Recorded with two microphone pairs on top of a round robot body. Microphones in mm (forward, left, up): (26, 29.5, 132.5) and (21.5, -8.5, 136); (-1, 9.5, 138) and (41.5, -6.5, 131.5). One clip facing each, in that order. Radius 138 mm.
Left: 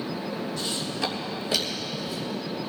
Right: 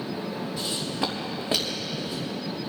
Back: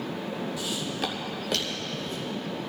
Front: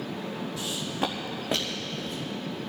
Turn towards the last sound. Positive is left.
turn(degrees=-50)